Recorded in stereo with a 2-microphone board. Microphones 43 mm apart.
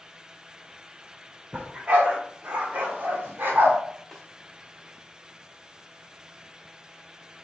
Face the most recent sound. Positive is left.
turn(degrees=0)  # may be behind; listen again after turning